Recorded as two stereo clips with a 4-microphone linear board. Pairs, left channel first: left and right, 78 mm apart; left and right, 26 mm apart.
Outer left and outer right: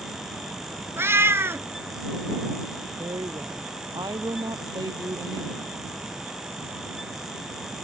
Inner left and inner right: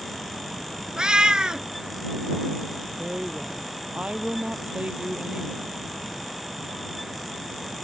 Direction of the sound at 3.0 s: 60° right (ahead or behind).